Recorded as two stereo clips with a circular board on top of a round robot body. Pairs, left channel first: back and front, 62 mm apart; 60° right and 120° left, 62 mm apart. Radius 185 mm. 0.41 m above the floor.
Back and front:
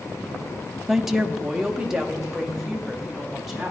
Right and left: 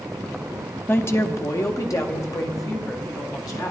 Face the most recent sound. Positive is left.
turn(degrees=-85)